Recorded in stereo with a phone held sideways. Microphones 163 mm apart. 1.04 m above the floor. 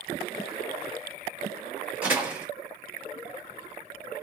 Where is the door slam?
10° right (ahead or behind), 1.5 m.